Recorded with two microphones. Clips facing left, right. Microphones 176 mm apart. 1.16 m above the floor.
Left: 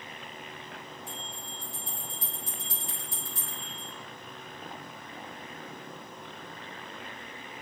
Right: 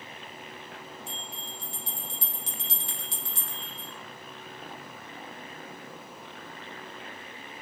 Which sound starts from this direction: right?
A bell, at 1.1 s.